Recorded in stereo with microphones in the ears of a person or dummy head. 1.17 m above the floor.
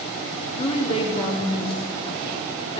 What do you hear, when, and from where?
0.6 s a woman speaking: 25° left (ahead or behind), 2.5 m